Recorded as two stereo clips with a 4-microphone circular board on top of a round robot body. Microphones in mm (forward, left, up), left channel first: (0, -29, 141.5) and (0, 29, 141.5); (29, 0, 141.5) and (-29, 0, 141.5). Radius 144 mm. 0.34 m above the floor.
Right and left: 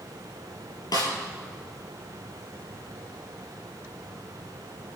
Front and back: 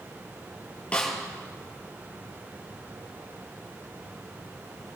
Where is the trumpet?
No trumpet in this recording.